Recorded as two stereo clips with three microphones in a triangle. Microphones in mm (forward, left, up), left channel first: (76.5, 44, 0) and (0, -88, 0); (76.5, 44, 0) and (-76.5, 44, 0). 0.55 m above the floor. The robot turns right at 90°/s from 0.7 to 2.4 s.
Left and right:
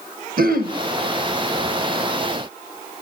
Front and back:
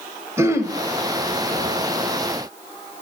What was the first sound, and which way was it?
Throat clearing, 110° right.